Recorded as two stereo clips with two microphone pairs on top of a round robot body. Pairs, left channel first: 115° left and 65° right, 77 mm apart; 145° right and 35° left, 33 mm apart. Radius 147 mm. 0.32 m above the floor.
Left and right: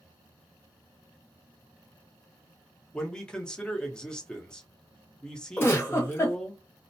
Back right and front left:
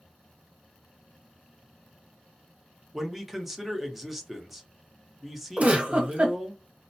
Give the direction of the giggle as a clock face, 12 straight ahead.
10 o'clock.